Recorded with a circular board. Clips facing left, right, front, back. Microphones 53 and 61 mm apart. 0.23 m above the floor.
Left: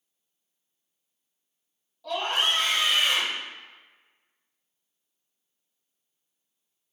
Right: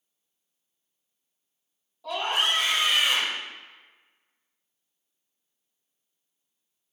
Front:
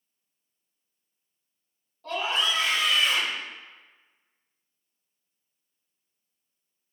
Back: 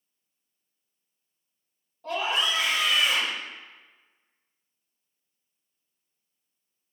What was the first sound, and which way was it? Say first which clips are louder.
A scream: even, even; 140° right.